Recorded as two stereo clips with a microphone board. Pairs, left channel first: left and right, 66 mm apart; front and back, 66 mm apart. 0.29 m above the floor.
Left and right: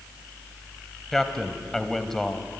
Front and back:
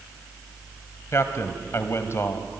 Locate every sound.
1.1 s a man speaking: 5° left, 1.7 m